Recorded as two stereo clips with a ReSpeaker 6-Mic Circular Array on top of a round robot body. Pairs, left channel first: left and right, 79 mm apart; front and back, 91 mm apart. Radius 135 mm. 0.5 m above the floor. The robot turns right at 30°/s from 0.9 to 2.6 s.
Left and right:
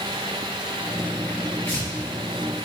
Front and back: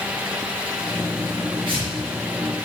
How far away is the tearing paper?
About 5 m.